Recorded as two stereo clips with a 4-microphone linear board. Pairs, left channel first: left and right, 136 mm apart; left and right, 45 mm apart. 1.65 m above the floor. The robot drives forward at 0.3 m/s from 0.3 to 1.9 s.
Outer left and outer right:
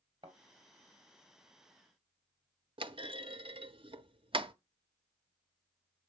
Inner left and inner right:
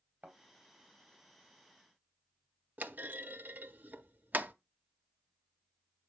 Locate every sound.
0.2 s a thud: 40° right (ahead or behind), 3 m; by 0.4 s 35° right (ahead or behind), 3 m
2.8 s a clunk: 40° right (ahead or behind), 0.6 m